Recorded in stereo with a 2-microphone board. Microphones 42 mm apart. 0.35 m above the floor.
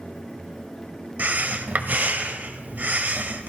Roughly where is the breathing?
Right.